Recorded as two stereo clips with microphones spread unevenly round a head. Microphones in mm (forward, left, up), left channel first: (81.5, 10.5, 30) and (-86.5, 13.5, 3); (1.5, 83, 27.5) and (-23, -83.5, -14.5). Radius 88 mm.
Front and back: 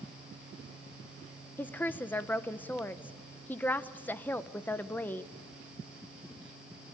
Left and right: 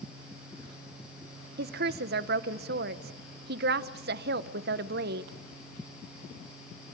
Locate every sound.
1.6 s a woman speaking: 85° right, 0.9 m